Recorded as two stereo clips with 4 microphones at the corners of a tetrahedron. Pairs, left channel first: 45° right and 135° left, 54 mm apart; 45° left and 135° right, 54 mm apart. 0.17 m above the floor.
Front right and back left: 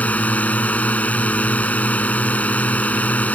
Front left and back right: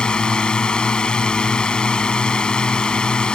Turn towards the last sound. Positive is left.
turn(degrees=-15)